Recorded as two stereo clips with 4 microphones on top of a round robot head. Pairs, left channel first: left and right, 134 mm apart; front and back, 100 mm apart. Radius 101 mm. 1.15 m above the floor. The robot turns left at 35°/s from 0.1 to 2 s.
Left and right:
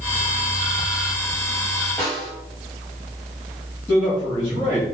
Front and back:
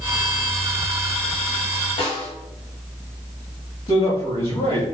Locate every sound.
2.0 s a snare drum: 10° left, 1.5 m
3.9 s a man speaking: 20° left, 2 m